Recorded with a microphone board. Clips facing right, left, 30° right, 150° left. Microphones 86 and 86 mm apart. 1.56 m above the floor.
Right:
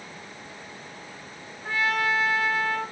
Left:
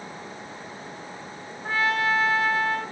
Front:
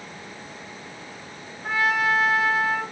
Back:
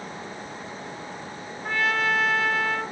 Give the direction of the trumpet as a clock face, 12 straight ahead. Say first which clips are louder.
Left 2 dB, front 2 dB; 11 o'clock.